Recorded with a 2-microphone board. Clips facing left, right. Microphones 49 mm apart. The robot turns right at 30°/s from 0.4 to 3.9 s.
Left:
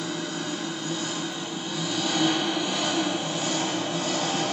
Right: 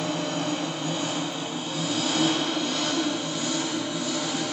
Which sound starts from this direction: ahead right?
An engine running, at 0.0 s.